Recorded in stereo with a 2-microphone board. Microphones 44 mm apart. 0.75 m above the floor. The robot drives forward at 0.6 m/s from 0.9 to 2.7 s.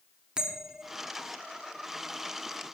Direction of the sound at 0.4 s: 20° right (ahead or behind).